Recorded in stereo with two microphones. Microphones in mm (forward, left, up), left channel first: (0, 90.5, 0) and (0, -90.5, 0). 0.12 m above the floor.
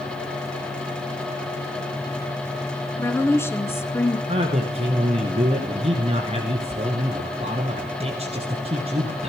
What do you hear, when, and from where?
3.0 s a woman speaking: 15° left (ahead or behind), 1.1 m
4.3 s a man speaking: 35° right (ahead or behind), 1.7 m